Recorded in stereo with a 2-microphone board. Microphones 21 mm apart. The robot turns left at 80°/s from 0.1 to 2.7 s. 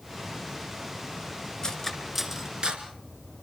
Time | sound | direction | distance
1.6 | cutlery clinking | 35° left (ahead or behind) | 2.5 m